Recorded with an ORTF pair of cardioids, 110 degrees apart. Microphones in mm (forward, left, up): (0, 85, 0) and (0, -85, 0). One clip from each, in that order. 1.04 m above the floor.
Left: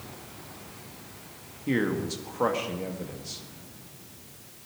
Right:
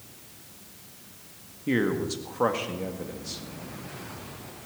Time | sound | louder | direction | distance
1.7 | a man speaking | right 1 dB | 5° right | 1.8 m